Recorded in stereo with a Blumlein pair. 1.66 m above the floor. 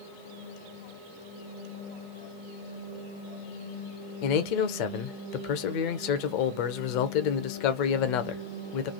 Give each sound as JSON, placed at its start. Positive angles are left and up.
{"t": 4.2, "sound": "a man speaking", "azimuth_deg": 45, "distance_m": 0.7}